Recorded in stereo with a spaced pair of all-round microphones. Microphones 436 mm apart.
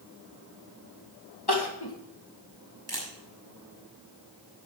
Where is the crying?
55° left (ahead or behind), 2.5 m.